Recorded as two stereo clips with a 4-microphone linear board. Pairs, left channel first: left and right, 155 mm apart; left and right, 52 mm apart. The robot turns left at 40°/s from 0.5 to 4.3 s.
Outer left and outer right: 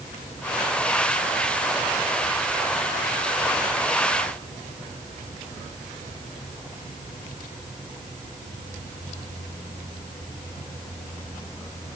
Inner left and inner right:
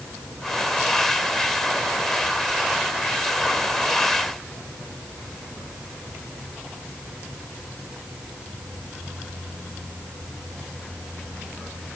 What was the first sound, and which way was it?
Only background noise.